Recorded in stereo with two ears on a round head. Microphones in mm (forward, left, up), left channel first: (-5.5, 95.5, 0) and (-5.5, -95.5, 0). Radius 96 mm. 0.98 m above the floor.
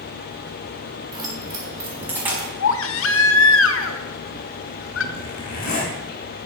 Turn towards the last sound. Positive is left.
turn(degrees=40)  # may be behind; listen again after turning